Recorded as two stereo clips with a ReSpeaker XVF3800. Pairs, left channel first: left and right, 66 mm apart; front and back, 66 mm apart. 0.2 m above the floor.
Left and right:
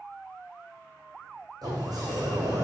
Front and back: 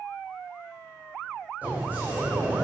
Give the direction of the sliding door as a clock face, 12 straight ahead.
4 o'clock.